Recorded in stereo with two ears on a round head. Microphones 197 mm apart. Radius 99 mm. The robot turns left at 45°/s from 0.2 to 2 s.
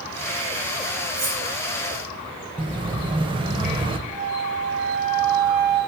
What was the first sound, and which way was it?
Cutlery clinking, 80° right.